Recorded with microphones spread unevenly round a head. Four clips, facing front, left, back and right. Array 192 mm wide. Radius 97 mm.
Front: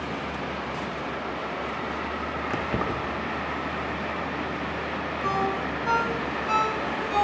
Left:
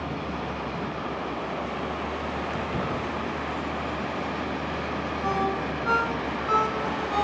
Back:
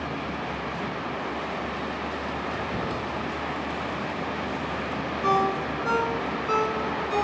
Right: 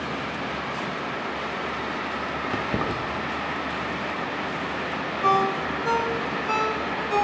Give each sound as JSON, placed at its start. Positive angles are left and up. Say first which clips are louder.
{"t": 2.5, "sound": "keys jangling", "louder": "right 2 dB, front 2 dB", "azimuth_deg": -55, "distance_m": 1.2}
{"t": 5.2, "sound": "a ringtone", "louder": "right 6 dB, back 4 dB", "azimuth_deg": -125, "distance_m": 2.5}